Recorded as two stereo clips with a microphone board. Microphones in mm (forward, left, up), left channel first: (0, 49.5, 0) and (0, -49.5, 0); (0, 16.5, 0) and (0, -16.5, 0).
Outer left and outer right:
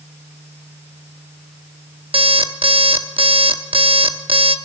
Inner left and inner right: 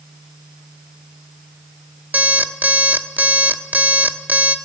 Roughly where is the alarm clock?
Right.